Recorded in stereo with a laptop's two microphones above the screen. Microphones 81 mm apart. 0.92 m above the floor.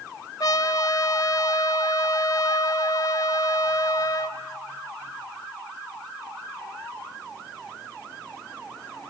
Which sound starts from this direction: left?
A trumpet, at 0.4 s.